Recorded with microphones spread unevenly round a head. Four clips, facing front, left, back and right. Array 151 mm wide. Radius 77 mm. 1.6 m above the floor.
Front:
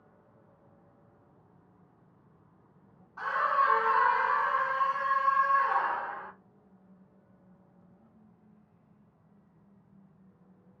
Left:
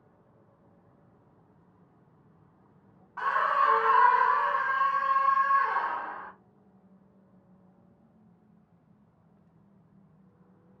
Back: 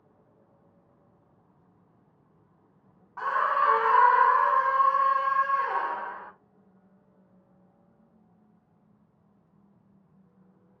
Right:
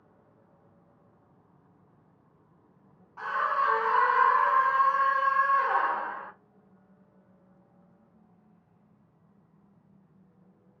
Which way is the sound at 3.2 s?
160° left.